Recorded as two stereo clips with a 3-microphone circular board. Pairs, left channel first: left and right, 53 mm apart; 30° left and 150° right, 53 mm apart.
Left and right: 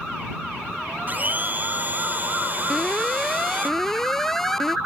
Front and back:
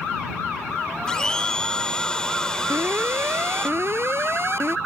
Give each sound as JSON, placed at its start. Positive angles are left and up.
{"t": 1.1, "sound": "a blender", "azimuth_deg": -45}
{"t": 2.7, "sound": "an alarm", "azimuth_deg": 175}